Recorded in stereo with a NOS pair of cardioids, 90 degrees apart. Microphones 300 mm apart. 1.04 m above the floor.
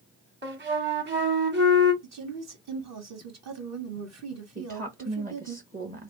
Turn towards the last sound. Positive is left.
turn(degrees=-25)